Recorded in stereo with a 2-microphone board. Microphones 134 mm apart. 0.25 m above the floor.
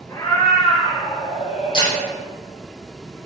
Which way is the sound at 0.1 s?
25° left (ahead or behind).